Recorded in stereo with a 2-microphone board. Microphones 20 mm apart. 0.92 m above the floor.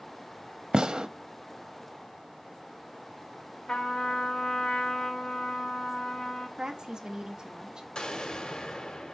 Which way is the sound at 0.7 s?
45° right (ahead or behind).